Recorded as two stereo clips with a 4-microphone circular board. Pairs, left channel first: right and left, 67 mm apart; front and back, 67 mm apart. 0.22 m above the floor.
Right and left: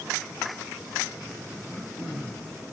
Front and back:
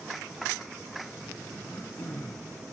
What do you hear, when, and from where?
1.6 s throat clearing: 10° right, 1.6 m